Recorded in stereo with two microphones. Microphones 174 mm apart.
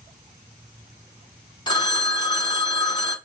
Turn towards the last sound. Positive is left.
turn(degrees=25)  # may be behind; listen again after turning